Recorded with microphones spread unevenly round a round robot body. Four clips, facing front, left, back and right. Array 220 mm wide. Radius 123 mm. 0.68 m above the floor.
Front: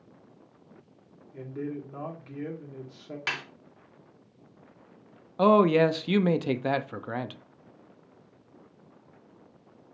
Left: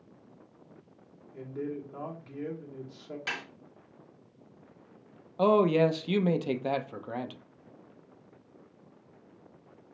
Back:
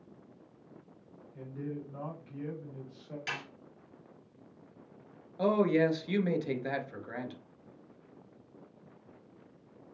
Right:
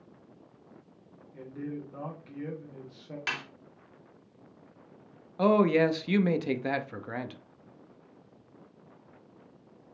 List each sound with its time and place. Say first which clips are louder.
1.3 s a man speaking: left 2 dB, front 5 dB; 5° left, 2.5 m
3.3 s a snare drum: right 2 dB, front 5 dB; 25° right, 2.5 m
5.4 s a man speaking: even, front 7 dB; 5° right, 0.6 m